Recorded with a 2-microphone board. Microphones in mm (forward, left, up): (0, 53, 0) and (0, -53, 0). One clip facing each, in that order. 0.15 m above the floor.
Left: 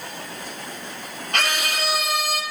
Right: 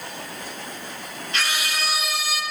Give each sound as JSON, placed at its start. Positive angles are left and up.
{"t": 1.3, "sound": "a scream", "side_deg": 55, "distance_m": 5.5}